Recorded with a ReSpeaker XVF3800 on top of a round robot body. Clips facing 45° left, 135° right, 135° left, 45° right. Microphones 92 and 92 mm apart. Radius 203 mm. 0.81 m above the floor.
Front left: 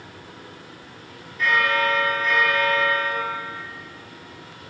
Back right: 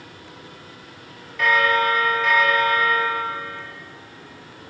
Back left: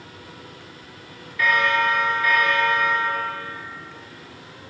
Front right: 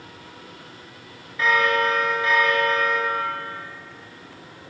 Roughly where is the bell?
Right.